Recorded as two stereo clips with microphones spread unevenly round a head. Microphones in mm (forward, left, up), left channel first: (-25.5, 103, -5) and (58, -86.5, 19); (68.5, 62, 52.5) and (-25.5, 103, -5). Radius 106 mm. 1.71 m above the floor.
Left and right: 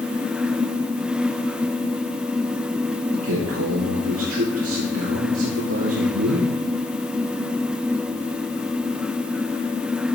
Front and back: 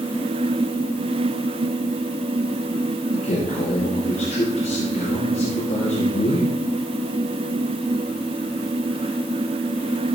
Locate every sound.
3.1 s a man speaking: 50° right, 2.5 m